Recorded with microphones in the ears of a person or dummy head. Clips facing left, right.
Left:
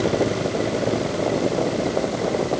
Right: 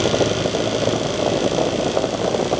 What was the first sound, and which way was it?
Only background noise.